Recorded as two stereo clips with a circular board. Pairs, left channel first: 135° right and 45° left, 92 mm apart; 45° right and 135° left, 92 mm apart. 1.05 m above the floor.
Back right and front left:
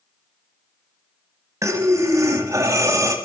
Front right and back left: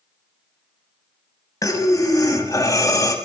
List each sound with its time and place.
1.6 s breathing: 5° right, 1.3 m